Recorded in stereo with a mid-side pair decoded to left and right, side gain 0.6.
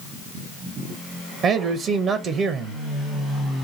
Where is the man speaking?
50° right, 0.6 m.